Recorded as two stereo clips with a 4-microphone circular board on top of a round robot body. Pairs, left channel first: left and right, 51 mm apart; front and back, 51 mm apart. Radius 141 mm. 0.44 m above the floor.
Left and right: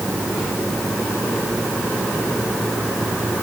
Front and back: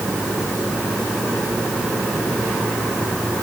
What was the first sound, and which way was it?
Only background noise.